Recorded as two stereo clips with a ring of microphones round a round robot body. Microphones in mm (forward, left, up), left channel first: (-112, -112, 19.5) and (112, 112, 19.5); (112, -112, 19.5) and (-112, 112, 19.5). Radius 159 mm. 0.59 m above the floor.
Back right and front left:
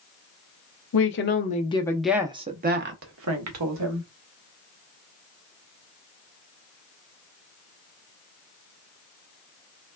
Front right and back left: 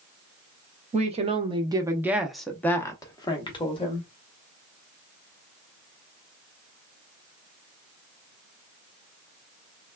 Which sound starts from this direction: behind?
A woman speaking, at 0.9 s.